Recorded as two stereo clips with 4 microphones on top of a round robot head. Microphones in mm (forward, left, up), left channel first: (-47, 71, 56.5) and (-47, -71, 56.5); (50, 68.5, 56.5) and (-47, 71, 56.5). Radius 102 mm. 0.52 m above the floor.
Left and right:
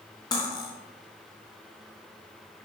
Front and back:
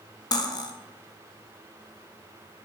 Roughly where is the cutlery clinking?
Ahead left.